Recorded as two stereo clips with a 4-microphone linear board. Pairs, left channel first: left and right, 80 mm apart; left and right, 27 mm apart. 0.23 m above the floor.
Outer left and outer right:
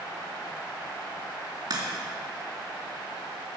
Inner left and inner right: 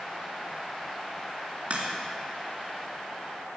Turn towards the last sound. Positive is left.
turn(degrees=-55)  # may be behind; listen again after turning